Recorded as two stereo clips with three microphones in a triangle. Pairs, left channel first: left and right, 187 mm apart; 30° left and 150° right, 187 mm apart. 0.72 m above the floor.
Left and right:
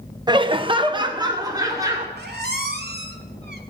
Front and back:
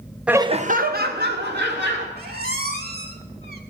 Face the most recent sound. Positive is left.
turn(degrees=-120)